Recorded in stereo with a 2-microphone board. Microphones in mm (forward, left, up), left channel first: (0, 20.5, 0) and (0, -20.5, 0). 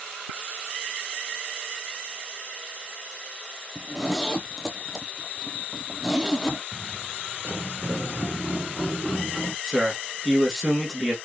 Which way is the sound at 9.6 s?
5° right (ahead or behind).